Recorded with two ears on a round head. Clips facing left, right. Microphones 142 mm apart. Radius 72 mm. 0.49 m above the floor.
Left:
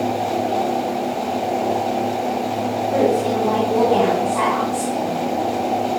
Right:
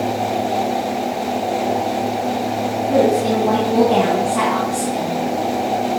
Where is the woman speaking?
35° right (ahead or behind), 5 m.